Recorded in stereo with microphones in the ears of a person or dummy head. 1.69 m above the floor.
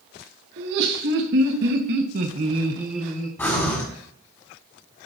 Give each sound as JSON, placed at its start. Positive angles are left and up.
{"t": 0.6, "sound": "laughter", "side_deg": -65, "distance_m": 1.6}
{"t": 3.4, "sound": "breathing", "side_deg": 10, "distance_m": 1.7}